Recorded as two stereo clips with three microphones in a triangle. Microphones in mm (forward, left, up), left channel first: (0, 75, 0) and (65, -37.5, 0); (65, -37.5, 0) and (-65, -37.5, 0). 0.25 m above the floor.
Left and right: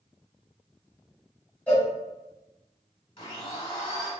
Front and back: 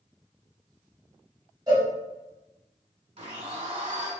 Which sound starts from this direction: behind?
A cowbell, at 1.7 s.